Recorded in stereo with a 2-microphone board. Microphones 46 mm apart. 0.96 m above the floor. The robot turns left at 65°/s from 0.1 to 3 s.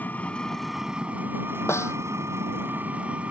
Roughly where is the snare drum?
Left.